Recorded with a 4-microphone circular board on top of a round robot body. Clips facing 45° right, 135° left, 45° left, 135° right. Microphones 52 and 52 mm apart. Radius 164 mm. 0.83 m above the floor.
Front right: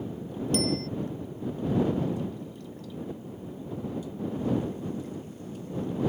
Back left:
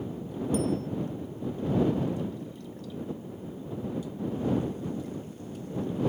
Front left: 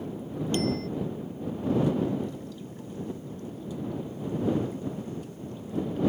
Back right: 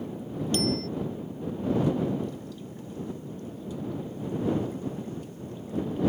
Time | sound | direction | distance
0.5 | a bicycle bell | 25° right | ?